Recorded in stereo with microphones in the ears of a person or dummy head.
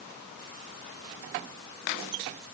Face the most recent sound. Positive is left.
No sound to turn to.